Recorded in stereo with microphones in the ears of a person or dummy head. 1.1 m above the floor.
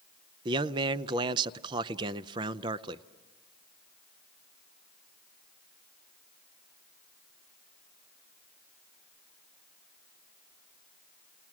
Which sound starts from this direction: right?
A man speaking, at 0.5 s.